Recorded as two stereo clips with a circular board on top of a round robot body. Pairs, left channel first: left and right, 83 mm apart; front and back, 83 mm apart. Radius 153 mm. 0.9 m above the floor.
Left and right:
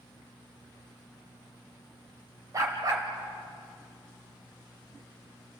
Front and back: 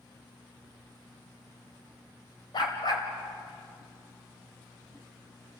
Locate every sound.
2.5 s a dog barking: 35° right, 1.9 m